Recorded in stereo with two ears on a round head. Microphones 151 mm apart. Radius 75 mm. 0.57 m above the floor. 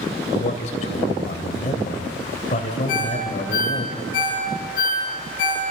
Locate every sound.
0.3 s a man speaking: 45° left (ahead or behind), 3.5 m
2.9 s a ringtone: 50° left (ahead or behind), 6.5 m